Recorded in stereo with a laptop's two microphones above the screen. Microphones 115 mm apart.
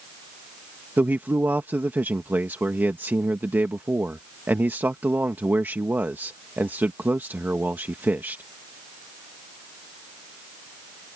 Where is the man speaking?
15° right (ahead or behind).